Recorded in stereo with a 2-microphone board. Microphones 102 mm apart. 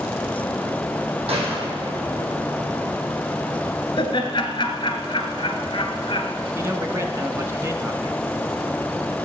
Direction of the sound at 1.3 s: 65° right (ahead or behind).